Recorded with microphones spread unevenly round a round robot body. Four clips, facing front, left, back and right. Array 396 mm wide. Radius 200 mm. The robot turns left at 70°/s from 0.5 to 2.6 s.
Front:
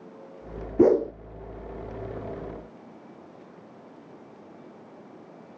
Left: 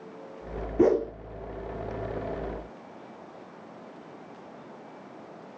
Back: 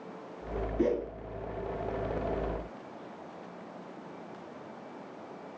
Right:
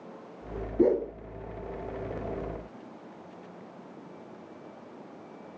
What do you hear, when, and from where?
0.8 s a whoosh: 50° left, 0.5 m; by 1.1 s 25° left, 0.5 m